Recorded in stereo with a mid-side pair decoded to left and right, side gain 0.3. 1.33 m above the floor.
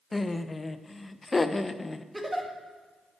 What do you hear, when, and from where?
0.1 s laughter: 30° left, 0.9 m
2.1 s a giggle: 15° right, 2 m